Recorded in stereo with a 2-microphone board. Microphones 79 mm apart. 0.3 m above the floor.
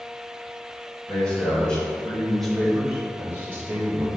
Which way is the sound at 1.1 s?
15° left (ahead or behind).